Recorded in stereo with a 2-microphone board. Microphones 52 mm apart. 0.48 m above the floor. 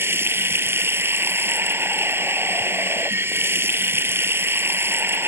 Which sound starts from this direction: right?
Running water, at 0.0 s.